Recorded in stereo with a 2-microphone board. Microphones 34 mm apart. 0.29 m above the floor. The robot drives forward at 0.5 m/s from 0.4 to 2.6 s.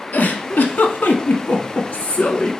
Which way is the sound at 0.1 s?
70° left (ahead or behind).